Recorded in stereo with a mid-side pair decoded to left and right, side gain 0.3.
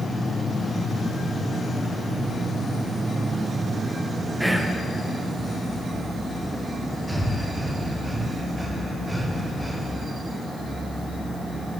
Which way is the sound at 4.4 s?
5° right.